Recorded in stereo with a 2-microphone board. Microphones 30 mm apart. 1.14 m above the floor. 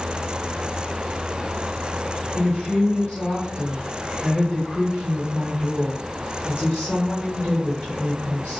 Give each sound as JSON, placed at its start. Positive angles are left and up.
{"t": 2.4, "sound": "a woman speaking", "side_deg": 55, "distance_m": 1.2}